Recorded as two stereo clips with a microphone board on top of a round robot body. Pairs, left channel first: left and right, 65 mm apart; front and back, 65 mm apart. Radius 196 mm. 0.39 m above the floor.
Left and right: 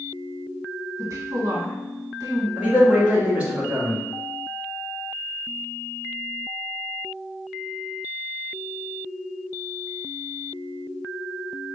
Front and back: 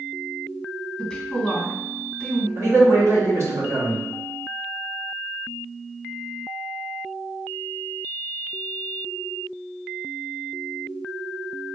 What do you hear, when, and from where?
1.0 s a woman speaking: 90° right, 1.7 m
2.6 s a man speaking: 155° right, 1.6 m